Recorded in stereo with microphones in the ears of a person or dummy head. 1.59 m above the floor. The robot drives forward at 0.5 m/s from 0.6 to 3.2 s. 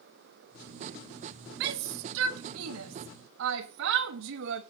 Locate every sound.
1.6 s a shout: 60° right (ahead or behind), 1.1 m; by 4.6 s 70° right (ahead or behind), 1.0 m